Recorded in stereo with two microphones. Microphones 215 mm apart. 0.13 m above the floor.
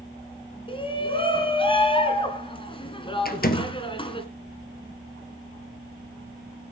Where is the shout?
25° left (ahead or behind), 1.7 m.